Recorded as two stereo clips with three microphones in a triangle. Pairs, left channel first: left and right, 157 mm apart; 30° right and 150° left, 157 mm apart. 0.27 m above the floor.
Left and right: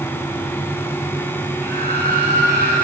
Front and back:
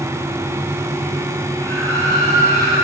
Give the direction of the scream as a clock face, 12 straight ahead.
3 o'clock.